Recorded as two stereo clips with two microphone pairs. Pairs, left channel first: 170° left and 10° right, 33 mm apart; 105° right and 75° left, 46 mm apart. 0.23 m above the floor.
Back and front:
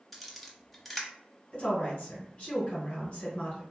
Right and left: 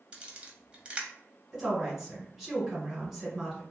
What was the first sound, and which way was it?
A camera shutter, 75° left.